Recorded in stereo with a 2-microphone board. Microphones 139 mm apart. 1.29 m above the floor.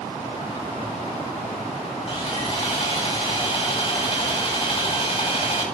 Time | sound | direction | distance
2.1 | sawing | 50° left (ahead or behind) | 3 m